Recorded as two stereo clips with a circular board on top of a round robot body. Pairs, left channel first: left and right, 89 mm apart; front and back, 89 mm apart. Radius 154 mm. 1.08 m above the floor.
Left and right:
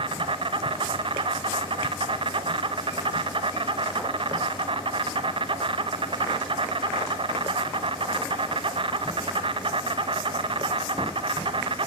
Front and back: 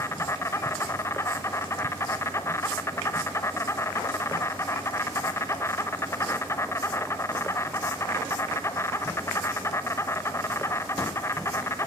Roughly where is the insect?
Ahead right.